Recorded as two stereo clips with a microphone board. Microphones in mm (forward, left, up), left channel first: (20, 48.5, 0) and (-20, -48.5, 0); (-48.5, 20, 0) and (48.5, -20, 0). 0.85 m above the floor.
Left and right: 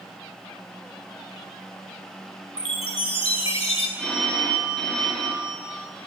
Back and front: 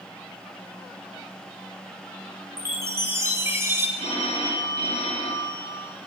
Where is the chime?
40° left, 2 m.